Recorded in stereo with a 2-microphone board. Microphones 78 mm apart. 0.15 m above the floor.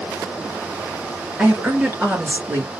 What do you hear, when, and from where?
1.4 s a woman speaking: 15° right (ahead or behind), 3 m; by 2.7 s 30° right (ahead or behind), 2.5 m